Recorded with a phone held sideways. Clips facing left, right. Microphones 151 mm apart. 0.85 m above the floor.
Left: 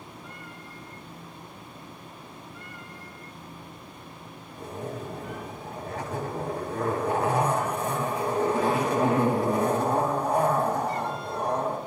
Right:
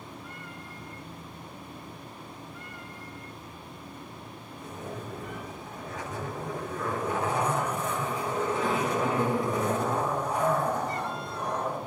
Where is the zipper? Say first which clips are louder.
Left 4 dB; 60° left (ahead or behind), 5.5 m.